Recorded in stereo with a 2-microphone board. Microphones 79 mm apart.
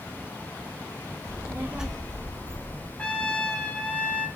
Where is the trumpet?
15° left (ahead or behind), 0.7 m.